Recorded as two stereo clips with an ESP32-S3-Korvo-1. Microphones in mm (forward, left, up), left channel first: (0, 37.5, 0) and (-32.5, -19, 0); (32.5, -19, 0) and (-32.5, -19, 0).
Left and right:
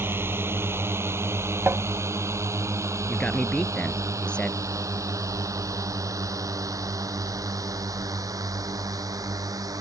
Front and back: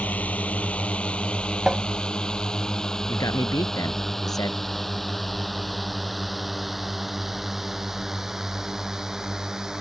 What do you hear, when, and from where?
0.0 s a drone: 70° right; by 9.8 s 100° right
1.7 s tapping: 100° right
3.1 s a man speaking: 15° right